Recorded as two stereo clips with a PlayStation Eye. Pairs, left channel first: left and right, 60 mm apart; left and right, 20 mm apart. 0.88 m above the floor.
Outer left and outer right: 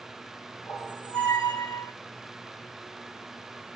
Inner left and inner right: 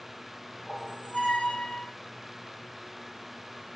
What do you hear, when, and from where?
0.7 s a squeak: 80° left, 1.5 m